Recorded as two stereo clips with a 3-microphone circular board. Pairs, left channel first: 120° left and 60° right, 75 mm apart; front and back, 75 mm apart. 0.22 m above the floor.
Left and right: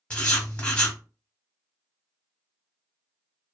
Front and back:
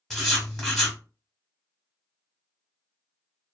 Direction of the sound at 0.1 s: 75° left.